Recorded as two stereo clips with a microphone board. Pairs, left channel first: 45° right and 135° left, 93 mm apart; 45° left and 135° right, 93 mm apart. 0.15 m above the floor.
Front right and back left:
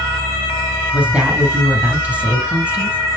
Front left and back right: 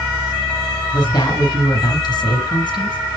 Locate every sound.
0.9 s a woman speaking: 70° left, 2.5 m